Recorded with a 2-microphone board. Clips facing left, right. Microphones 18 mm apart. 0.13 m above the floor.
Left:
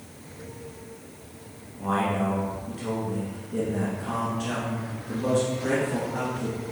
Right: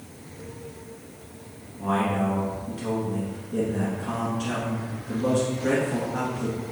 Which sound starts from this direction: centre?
A man speaking, at 1.8 s.